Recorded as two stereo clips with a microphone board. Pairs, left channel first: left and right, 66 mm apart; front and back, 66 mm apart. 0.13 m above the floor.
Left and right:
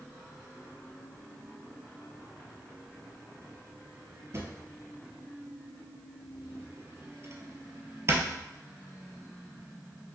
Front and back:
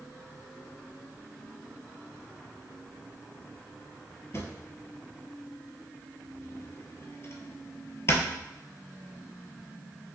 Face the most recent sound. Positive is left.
turn(degrees=-45)